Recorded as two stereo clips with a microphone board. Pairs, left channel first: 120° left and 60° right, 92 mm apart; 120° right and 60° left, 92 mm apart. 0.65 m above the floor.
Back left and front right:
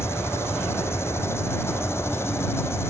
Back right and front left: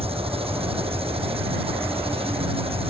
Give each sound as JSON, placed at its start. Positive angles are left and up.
{"t": 0.0, "sound": "an engine running", "azimuth_deg": 55}